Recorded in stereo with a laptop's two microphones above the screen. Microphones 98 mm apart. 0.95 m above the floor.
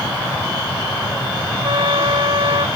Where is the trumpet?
60° right (ahead or behind).